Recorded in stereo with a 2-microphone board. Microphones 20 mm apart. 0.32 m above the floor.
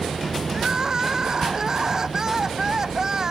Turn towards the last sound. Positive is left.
turn(degrees=-20)  # may be behind; listen again after turning